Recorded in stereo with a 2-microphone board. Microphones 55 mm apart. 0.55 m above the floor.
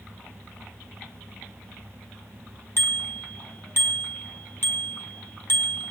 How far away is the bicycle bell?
About 3 m.